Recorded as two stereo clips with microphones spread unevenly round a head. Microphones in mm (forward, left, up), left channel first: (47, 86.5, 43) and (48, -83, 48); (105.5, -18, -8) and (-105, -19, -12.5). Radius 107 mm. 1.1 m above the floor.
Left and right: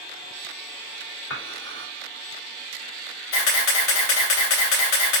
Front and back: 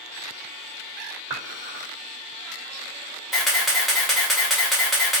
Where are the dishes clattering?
110° left, 2.5 m.